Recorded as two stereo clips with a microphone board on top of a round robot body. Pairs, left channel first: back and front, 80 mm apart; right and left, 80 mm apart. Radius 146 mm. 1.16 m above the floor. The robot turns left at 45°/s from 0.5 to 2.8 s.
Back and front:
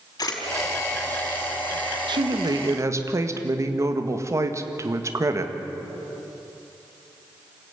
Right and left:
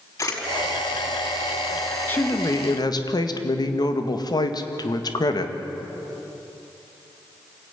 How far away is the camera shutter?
About 4.5 m.